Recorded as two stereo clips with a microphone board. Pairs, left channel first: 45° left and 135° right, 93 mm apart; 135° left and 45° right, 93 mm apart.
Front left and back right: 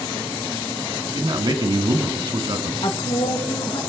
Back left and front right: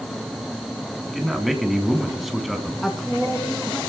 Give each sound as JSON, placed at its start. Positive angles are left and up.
{"t": 1.1, "sound": "a man speaking", "azimuth_deg": -135, "distance_m": 1.9}
{"t": 2.8, "sound": "a woman speaking", "azimuth_deg": 50, "distance_m": 1.8}